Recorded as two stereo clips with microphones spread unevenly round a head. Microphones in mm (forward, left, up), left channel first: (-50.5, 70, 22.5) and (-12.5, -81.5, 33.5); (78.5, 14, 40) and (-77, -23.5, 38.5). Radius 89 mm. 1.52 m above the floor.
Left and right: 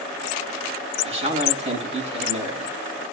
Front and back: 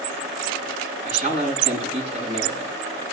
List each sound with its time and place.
1.0 s a man speaking: 125° right, 8.5 m